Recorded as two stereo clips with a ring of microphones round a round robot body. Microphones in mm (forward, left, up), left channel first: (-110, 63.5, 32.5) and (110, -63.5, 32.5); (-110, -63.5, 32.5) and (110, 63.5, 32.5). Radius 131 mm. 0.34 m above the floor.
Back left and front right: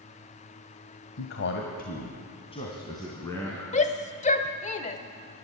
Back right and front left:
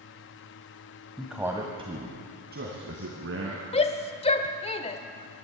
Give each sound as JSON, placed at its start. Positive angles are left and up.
{"t": 1.2, "sound": "a man speaking", "azimuth_deg": 125, "distance_m": 1.7}
{"t": 3.7, "sound": "a shout", "azimuth_deg": 170, "distance_m": 1.1}